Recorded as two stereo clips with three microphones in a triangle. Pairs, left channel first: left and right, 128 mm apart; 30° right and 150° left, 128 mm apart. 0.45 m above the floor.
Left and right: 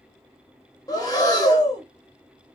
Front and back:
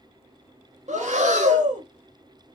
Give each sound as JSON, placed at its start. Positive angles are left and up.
{"t": 0.9, "sound": "breathing", "azimuth_deg": 145, "distance_m": 0.9}